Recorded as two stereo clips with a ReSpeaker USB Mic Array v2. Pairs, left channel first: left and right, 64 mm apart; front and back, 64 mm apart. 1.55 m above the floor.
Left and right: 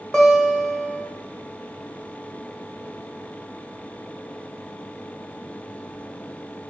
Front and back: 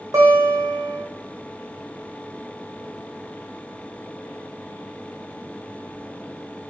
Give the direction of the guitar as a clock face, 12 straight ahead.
6 o'clock.